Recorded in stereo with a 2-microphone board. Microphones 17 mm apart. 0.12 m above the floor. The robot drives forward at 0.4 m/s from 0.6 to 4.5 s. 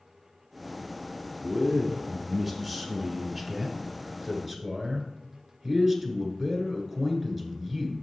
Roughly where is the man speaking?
Centre.